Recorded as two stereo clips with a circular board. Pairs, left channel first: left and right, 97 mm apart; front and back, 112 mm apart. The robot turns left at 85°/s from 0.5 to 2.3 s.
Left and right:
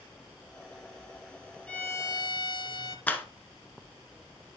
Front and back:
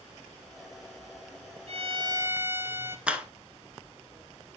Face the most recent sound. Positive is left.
turn(degrees=120)